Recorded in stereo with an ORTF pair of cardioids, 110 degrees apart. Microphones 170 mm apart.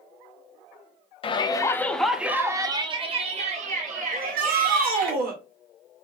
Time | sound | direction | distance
1.2 | a shout | 30° left | 0.8 m
4.1 | a shout | 60° right | 1.4 m